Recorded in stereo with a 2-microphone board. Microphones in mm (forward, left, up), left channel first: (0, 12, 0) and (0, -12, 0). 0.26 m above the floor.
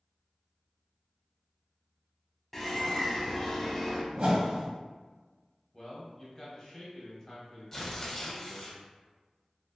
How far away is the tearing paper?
About 0.7 m.